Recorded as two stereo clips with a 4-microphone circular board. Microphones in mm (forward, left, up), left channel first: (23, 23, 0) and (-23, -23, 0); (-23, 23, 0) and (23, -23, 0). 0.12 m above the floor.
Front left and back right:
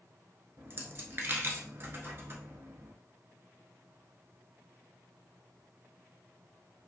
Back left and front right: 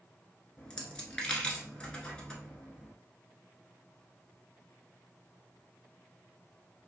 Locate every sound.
0.6 s a dropped coin: 155° right, 0.9 m